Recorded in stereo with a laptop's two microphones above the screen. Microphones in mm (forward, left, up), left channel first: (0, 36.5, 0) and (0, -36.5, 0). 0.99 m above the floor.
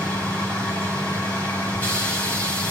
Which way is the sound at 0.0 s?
20° left (ahead or behind).